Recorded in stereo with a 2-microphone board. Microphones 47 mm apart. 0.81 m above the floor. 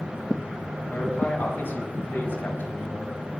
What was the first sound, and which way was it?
A man speaking, 50° left (ahead or behind).